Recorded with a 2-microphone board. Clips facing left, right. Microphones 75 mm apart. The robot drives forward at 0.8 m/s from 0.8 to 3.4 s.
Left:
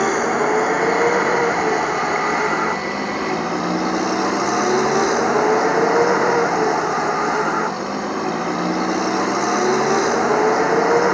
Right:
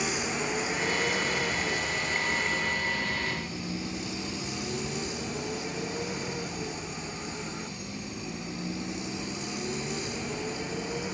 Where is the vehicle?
55° left (ahead or behind); by 11.1 s 70° left (ahead or behind).